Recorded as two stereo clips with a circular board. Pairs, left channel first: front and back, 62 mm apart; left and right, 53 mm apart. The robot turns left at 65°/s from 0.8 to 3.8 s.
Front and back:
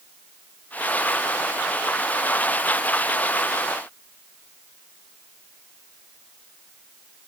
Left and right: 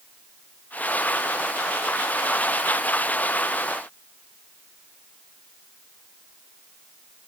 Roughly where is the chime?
I don't hear a chime.